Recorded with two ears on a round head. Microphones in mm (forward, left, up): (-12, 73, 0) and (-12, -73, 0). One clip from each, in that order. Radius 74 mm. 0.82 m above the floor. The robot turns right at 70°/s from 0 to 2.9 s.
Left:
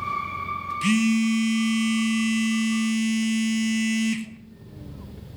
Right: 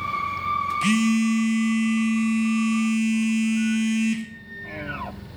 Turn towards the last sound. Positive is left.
turn(degrees=15)  # may be behind; listen again after turning